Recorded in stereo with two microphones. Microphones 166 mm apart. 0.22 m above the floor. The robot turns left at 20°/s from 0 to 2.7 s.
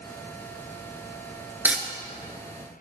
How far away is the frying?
About 0.7 m.